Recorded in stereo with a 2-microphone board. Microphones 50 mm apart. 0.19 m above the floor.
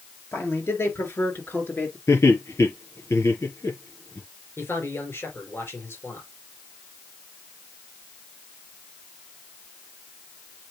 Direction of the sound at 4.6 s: 50° left (ahead or behind).